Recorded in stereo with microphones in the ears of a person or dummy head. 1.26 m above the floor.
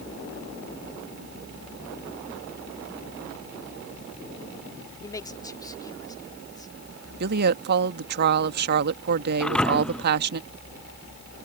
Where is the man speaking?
20° left (ahead or behind).